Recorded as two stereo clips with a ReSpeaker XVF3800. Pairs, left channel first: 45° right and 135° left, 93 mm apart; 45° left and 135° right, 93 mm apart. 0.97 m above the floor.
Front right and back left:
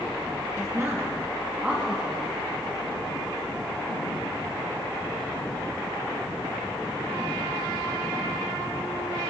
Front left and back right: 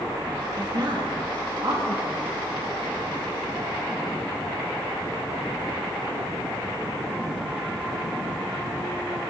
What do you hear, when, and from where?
0.6 s a woman speaking: 175° right, 1.8 m; by 2.4 s 140° right, 1.9 m